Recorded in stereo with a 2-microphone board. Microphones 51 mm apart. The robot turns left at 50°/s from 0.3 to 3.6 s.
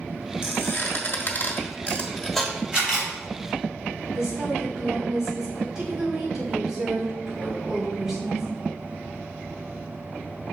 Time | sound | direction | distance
0.4 | a squeak | 50° left (ahead or behind) | 1.4 m
2.7 | a camera shutter | 20° right (ahead or behind) | 2.5 m
4.1 | a woman speaking | 10° right (ahead or behind) | 1.7 m